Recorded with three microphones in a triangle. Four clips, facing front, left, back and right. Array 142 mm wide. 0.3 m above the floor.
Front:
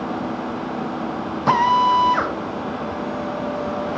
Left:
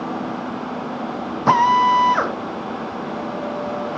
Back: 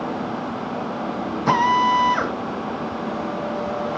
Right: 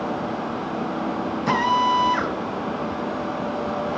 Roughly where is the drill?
Ahead left.